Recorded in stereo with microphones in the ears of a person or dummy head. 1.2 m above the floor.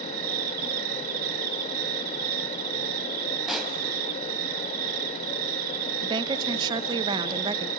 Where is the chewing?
I don't hear chewing.